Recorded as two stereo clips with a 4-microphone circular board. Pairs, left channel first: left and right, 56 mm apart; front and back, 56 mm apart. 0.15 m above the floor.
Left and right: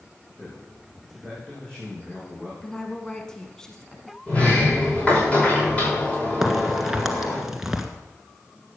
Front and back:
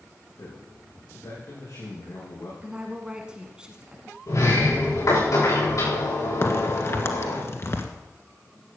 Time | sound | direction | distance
0.3 | a man speaking | 20° left | 5.5 m
2.6 | a woman speaking | 140° left | 1.1 m
4.3 | a sliding door | 25° left | 8.5 m
6.4 | a crack | 10° right | 1.5 m